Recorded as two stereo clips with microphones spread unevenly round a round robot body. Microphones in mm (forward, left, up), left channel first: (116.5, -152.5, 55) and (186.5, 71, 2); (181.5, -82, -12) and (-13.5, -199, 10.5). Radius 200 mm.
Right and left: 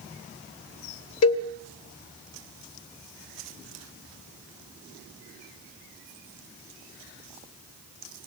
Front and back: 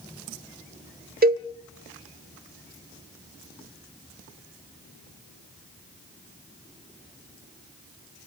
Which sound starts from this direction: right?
A cowbell, at 1.2 s.